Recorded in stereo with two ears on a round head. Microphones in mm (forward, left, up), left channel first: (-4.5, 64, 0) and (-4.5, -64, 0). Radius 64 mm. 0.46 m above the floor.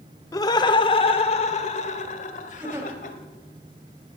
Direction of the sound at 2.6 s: 15° right (ahead or behind).